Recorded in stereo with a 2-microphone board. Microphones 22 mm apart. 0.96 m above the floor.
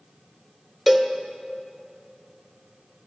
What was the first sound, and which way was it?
A cowbell, 5° right (ahead or behind).